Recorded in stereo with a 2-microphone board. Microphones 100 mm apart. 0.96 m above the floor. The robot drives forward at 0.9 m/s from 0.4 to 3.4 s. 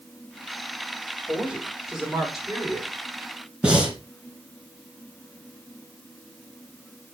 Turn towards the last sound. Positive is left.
turn(degrees=-10)  # may be behind; listen again after turning